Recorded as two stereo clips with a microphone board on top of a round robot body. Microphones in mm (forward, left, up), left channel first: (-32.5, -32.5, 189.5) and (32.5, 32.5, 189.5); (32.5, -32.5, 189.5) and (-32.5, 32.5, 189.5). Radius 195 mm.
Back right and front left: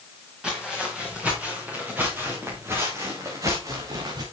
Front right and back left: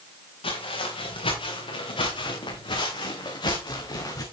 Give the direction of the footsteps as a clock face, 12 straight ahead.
1 o'clock.